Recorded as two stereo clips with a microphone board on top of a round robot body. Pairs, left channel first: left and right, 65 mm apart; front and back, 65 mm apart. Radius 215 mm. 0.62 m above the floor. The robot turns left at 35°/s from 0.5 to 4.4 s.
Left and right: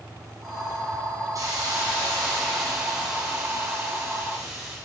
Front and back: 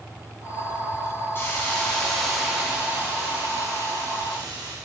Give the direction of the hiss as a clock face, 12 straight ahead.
2 o'clock.